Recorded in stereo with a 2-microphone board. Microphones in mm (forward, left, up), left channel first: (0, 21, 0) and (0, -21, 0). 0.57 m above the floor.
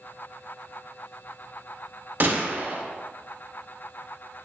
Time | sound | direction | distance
2.2 | a gunshot | 50° right (ahead or behind) | 0.6 m